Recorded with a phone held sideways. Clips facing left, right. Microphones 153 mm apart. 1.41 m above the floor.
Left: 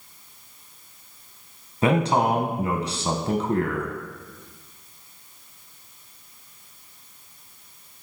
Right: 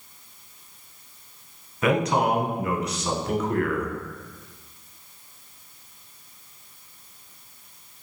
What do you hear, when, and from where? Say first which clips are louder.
1.8 s a man speaking: left 1 dB; 30° left (ahead or behind), 0.9 m